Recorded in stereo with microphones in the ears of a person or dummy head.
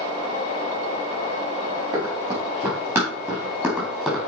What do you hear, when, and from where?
1.9 s running footsteps: 25° right (ahead or behind), 4.5 m; by 4.2 s centre (ahead or behind), 2.5 m